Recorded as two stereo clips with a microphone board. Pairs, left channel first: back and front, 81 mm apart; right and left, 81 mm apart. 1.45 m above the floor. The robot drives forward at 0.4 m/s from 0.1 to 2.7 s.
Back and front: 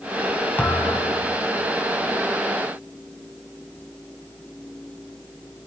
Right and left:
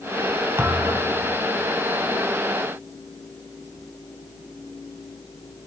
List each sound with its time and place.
0.6 s a thud: 130° left, 1.5 m; by 1.2 s 140° left, 1.6 m